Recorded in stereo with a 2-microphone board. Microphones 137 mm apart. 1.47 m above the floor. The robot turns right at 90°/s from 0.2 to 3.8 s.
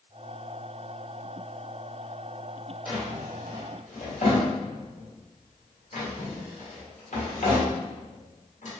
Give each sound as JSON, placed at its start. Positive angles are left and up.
{"t": 2.9, "sound": "a drawer", "side_deg": -10, "distance_m": 1.3}